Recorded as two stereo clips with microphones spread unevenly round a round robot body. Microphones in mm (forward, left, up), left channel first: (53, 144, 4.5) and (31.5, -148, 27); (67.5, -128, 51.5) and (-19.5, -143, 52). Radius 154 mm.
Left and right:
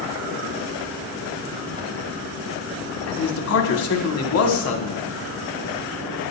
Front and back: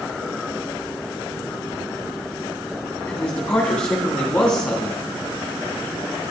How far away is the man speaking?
About 1.6 m.